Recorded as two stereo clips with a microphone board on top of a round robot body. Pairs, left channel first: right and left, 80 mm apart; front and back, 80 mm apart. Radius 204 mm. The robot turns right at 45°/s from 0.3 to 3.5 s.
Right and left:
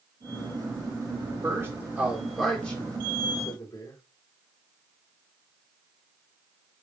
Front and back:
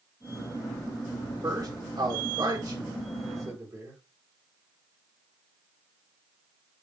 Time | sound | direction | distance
1.4 | a man speaking | 140° left | 3.5 m